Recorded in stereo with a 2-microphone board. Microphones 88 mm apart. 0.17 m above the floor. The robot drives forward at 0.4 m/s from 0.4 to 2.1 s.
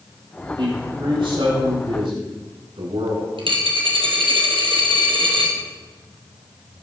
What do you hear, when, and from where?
0.6 s a man speaking: 75° right (ahead or behind), 6 m
3.4 s a dropped coin: 70° right (ahead or behind), 2.5 m